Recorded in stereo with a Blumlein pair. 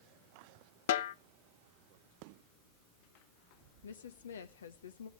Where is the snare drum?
55° left, 0.6 m.